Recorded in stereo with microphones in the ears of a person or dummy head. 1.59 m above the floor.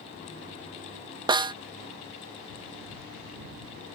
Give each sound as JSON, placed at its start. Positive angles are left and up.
{"t": 1.3, "sound": "a snare drum", "side_deg": -20}